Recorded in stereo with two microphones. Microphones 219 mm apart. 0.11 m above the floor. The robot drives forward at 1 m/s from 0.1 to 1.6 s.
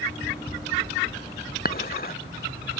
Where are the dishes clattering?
45° left (ahead or behind).